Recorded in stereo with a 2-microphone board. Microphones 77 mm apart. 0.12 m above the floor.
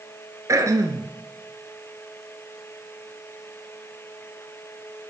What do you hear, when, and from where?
0.5 s throat clearing: 40° right (ahead or behind), 1.2 m